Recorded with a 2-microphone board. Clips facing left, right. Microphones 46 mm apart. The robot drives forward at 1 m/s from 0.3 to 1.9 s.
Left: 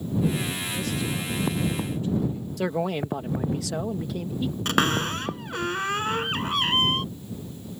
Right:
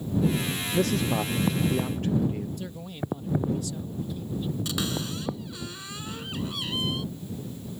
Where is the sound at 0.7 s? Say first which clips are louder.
Right 8 dB; 55° right (ahead or behind).